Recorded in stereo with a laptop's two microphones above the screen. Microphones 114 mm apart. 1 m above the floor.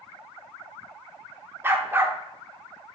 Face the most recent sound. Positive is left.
turn(degrees=-20)  # may be behind; listen again after turning